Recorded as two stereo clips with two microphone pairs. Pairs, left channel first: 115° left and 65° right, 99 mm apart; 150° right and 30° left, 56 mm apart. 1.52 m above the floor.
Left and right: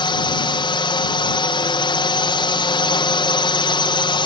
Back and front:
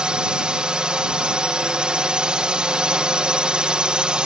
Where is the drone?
100° left.